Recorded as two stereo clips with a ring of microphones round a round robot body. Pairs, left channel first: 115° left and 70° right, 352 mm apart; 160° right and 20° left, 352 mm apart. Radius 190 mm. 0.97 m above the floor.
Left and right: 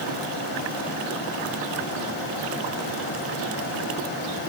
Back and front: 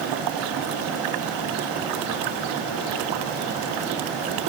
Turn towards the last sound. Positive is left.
No sound to turn to.